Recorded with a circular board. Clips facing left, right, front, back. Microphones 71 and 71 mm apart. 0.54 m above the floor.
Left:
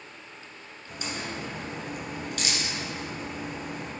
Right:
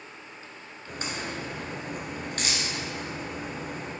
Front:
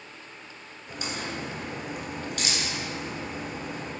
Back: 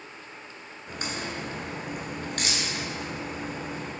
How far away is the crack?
About 1.6 m.